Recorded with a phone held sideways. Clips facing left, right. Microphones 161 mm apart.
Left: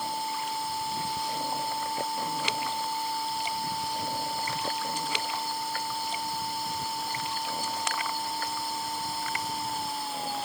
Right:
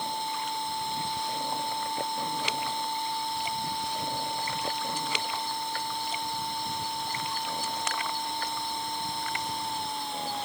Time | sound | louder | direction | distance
0.0 | a machine running | even | 5° left (ahead or behind) | ?